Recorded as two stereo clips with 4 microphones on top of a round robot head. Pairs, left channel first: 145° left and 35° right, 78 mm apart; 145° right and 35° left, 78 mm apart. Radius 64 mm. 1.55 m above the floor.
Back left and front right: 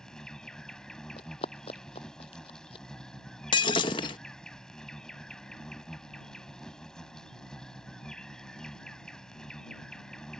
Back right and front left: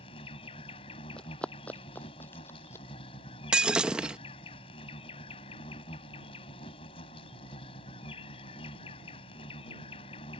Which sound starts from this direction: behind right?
An insect, at 0.0 s.